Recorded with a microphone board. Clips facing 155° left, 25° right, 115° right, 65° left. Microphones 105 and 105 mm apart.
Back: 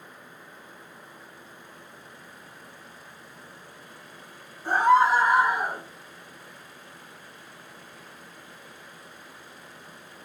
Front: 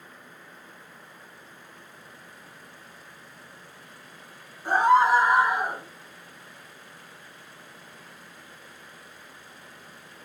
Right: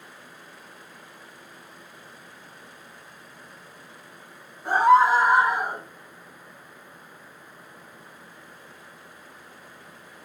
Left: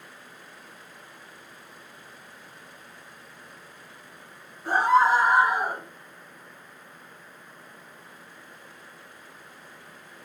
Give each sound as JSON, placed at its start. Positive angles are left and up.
{"t": 4.7, "sound": "a scream", "azimuth_deg": -80, "distance_m": 1.5}